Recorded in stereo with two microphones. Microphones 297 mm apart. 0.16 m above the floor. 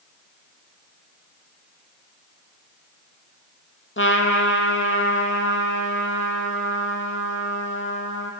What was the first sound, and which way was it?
A trumpet, 45° left (ahead or behind).